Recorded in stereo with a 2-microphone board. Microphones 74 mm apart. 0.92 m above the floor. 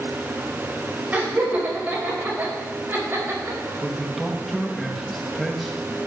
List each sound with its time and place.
1.1 s laughter: 25° right (ahead or behind), 5 m; by 3.8 s 40° right (ahead or behind), 5.5 m
3.8 s a man speaking: centre (ahead or behind), 1.2 m